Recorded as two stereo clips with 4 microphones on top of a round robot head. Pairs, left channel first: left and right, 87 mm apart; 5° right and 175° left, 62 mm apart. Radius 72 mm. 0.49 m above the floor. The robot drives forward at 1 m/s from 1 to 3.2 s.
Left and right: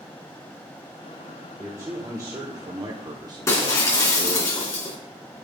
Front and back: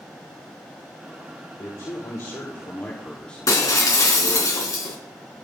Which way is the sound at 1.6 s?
35° right.